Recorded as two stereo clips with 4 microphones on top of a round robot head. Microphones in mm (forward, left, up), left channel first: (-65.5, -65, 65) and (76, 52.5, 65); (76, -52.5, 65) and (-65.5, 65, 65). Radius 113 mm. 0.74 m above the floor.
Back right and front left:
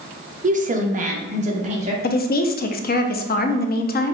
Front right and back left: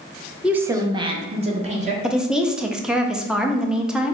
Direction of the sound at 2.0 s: 135° right.